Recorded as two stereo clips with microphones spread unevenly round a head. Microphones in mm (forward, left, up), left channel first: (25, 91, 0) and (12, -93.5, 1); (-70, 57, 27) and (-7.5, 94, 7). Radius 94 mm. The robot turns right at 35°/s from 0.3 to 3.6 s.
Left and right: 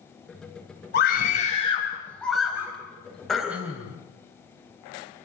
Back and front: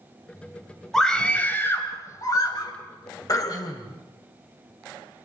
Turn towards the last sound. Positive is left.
turn(degrees=-175)